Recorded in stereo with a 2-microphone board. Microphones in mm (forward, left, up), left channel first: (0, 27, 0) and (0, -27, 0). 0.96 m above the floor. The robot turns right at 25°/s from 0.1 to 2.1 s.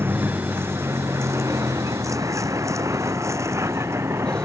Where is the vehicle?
45° right (ahead or behind); by 4.5 s 55° right (ahead or behind).